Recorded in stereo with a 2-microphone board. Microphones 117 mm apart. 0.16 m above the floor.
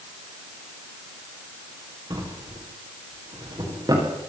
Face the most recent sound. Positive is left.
turn(degrees=-35)  # may be behind; listen again after turning